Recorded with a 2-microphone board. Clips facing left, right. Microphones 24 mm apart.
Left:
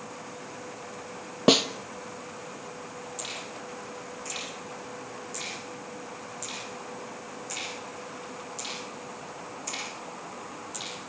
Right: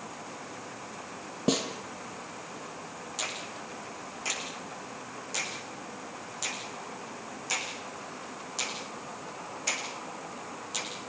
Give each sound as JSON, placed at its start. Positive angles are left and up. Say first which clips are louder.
{"t": 1.5, "sound": "a snare drum", "louder": "left 8 dB", "side_deg": 45, "distance_m": 1.6}
{"t": 3.2, "sound": "a finger snap", "louder": "right 3 dB", "side_deg": -40, "distance_m": 9.0}